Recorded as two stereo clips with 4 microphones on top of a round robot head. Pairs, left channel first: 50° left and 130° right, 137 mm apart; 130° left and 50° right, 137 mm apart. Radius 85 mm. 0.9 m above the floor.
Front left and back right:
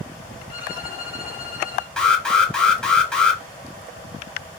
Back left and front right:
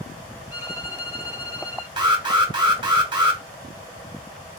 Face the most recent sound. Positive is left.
turn(degrees=-30)